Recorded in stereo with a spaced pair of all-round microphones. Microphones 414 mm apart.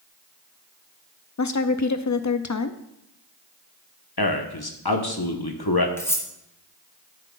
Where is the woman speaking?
45° left (ahead or behind), 0.5 m.